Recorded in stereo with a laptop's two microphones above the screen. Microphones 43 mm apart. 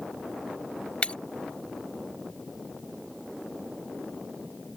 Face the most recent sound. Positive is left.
turn(degrees=30)  # may be behind; listen again after turning